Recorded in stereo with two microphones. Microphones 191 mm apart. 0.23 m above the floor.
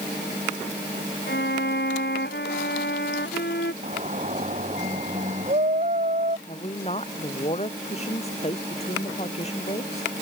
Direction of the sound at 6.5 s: 35° left (ahead or behind).